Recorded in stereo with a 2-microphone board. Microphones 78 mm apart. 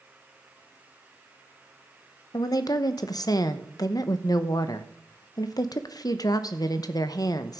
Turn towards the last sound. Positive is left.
turn(degrees=55)  # may be behind; listen again after turning